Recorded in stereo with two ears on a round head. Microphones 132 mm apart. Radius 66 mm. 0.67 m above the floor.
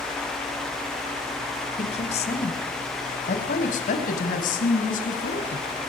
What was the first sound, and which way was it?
A woman speaking, 45° left (ahead or behind).